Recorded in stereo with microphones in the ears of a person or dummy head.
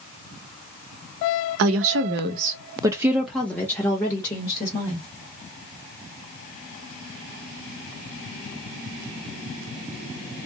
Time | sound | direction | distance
1.6 | a woman speaking | 70° right (ahead or behind) | 0.6 m